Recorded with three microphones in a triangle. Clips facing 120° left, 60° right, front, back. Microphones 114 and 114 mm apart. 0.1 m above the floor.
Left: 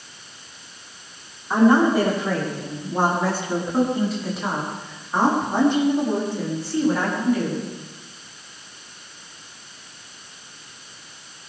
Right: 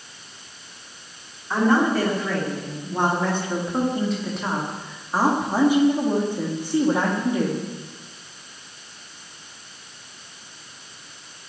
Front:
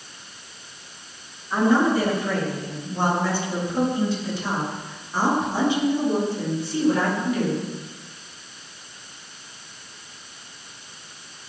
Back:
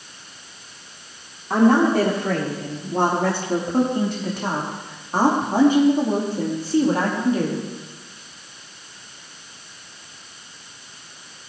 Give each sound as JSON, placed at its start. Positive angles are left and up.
{"t": 1.5, "sound": "a woman speaking", "azimuth_deg": -165, "distance_m": 8.5}